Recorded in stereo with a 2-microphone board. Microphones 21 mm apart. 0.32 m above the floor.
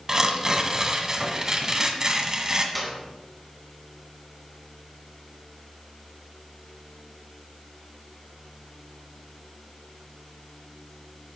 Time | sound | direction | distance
0.1 | tearing paper | 30° right (ahead or behind) | 1.5 m
2.8 | a clap | centre (ahead or behind) | 3 m